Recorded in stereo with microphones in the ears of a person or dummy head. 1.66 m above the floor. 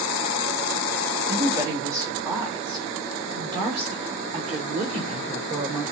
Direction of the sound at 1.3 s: 10° right (ahead or behind).